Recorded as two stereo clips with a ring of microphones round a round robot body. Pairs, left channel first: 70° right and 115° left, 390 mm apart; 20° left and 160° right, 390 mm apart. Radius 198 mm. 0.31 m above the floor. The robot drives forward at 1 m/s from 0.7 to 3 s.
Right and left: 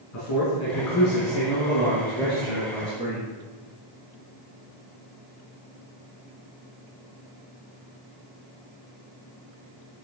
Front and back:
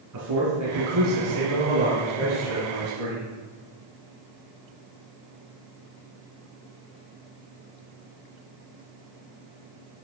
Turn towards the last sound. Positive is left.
turn(degrees=-140)